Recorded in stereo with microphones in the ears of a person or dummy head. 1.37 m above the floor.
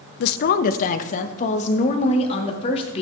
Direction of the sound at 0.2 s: 60° left (ahead or behind).